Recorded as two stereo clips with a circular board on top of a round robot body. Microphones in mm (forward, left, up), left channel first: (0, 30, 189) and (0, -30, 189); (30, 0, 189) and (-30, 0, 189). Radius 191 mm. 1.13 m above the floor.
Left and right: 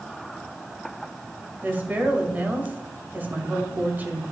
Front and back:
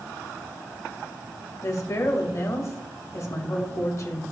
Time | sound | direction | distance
1.6 | a woman speaking | 30° right | 2 m